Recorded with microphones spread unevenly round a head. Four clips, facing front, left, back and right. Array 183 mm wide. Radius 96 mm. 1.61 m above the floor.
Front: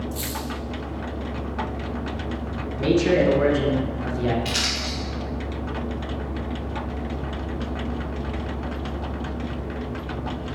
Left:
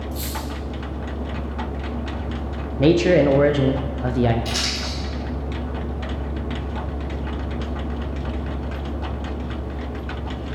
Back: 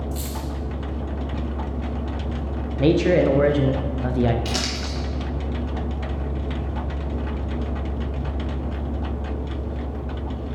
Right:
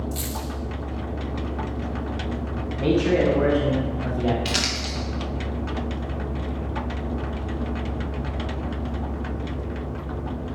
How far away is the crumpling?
About 1.3 m.